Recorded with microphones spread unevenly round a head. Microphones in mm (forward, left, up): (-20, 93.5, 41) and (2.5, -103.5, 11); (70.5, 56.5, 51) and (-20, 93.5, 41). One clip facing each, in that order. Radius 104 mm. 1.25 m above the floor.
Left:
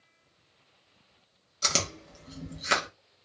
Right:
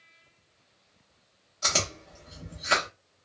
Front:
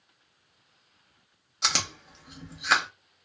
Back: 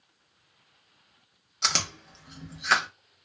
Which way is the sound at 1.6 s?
60° left.